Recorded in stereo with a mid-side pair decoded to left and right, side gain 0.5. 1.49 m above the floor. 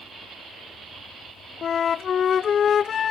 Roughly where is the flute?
Ahead left.